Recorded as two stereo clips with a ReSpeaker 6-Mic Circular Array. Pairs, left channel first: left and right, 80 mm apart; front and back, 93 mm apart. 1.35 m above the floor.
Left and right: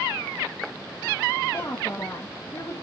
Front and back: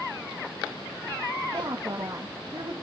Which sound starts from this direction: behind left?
A woman speaking, at 1.5 s.